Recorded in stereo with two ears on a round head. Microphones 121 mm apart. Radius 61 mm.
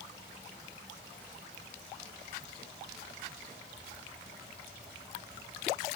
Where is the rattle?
No rattle in this recording.